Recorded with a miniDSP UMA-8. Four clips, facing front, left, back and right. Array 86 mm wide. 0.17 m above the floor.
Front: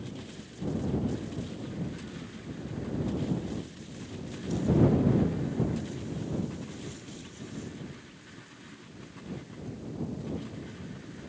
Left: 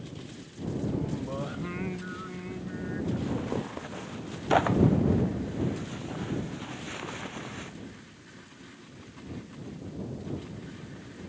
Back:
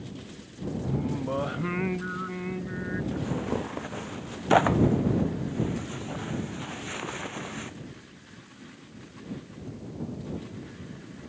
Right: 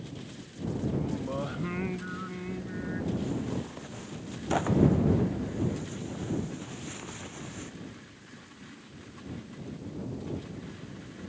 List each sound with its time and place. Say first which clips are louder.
0.8 s singing: right 1 dB, back 6 dB; 175° right
3.1 s tearing paper: left 3 dB, back 3 dB; 160° left